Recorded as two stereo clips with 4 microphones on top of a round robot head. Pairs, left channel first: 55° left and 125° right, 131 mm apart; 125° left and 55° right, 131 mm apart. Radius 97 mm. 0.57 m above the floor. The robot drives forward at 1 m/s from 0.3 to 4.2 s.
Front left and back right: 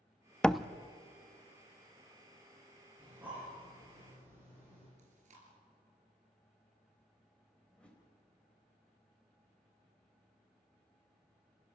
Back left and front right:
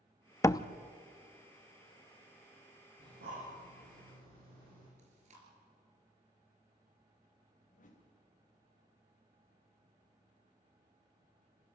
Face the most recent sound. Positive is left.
turn(degrees=135)